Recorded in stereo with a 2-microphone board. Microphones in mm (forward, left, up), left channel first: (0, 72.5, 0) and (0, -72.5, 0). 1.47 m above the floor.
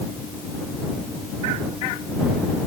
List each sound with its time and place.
Only background noise.